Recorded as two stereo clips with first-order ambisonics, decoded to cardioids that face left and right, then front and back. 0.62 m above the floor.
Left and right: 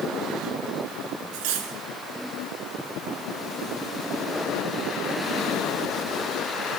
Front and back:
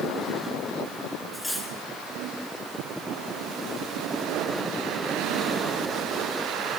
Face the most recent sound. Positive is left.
turn(degrees=-85)